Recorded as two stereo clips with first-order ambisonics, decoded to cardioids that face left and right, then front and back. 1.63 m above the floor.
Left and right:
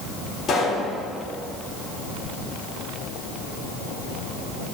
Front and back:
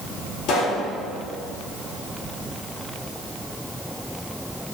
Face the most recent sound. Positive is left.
turn(degrees=30)